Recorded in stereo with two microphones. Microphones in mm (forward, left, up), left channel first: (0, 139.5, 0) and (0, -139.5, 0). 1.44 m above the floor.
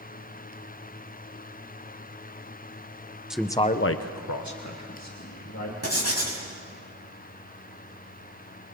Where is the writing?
65° right (ahead or behind), 4 m.